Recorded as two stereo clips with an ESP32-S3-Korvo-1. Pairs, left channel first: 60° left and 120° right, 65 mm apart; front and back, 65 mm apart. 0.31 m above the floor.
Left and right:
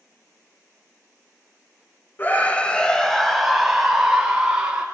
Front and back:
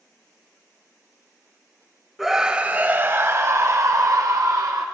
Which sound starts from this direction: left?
A scream, at 2.2 s.